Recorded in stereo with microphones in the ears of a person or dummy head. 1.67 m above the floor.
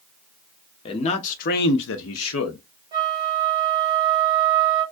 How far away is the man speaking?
About 0.8 m.